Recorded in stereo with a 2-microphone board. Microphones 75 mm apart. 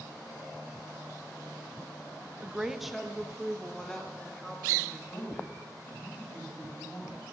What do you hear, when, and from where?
2.4 s a woman speaking: 15° right (ahead or behind), 0.5 m; by 5.0 s 10° left (ahead or behind), 3 m
5.1 s a man speaking: 35° left (ahead or behind), 7.5 m